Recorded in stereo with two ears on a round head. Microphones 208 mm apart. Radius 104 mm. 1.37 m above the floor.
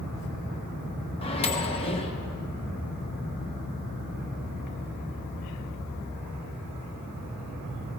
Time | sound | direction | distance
1.2 | a microwave | 25° left (ahead or behind) | 1.0 m